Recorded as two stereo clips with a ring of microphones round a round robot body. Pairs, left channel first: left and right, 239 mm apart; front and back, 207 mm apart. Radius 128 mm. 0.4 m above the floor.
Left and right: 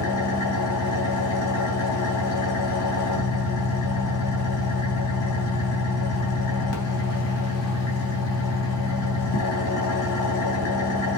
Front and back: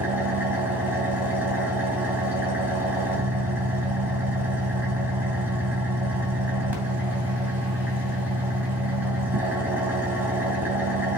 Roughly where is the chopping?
No chopping in this recording.